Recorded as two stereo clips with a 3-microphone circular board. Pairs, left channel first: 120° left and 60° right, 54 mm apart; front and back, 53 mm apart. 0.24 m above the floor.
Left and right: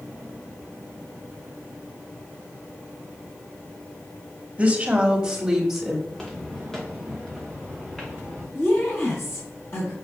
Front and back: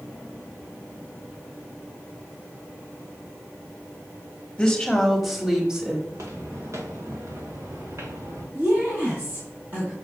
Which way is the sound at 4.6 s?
60° right.